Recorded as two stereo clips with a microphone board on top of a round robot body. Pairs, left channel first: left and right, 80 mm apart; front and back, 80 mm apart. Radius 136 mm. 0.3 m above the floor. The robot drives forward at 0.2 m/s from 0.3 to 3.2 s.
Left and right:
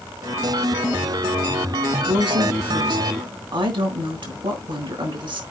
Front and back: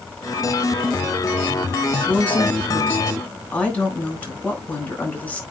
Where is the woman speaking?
70° right, 4 m.